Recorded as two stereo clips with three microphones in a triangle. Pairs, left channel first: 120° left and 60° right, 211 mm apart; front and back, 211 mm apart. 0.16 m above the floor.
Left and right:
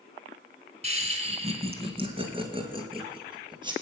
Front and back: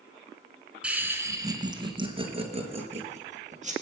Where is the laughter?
100° right, 1.6 m; by 3.7 s 130° right, 4 m.